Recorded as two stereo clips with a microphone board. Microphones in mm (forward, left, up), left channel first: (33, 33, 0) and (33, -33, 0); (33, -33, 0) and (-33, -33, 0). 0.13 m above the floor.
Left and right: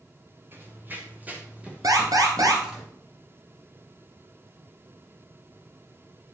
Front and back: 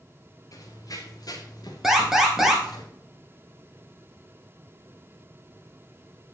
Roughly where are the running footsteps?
Ahead right.